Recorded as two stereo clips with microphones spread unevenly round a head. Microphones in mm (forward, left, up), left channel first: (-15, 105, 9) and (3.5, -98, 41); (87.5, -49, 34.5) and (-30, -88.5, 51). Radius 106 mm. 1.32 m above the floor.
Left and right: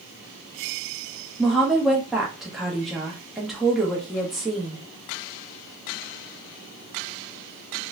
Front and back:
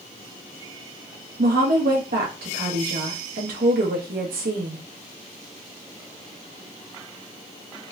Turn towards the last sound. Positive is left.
turn(degrees=-170)